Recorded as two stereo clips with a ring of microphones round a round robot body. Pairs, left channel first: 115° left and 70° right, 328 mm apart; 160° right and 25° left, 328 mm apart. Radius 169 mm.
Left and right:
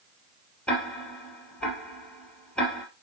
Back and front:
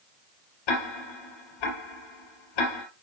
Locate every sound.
0.7 s ticking: 160° right, 2.5 m